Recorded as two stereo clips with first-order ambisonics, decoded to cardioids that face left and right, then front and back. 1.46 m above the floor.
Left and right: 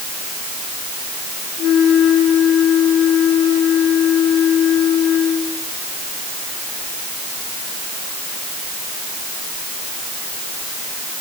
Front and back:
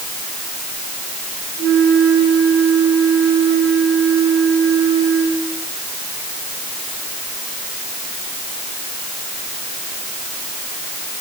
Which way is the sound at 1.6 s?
130° left.